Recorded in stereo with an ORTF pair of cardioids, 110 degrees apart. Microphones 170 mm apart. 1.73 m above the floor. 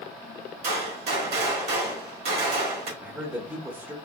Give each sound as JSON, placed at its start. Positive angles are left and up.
{"t": 0.6, "sound": "a gunshot", "azimuth_deg": -70, "distance_m": 1.3}
{"t": 3.0, "sound": "a man speaking", "azimuth_deg": -10, "distance_m": 0.7}